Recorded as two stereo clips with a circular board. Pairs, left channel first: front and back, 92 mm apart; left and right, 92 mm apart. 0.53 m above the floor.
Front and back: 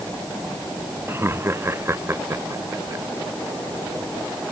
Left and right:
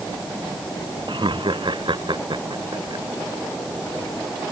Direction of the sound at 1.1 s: 115° right.